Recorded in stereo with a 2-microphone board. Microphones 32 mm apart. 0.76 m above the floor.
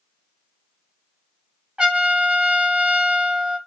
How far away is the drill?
No drill in this recording.